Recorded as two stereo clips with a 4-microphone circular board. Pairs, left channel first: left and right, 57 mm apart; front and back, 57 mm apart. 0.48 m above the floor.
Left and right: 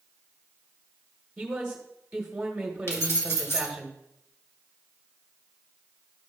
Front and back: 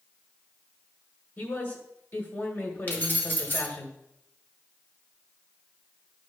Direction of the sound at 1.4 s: 15° right.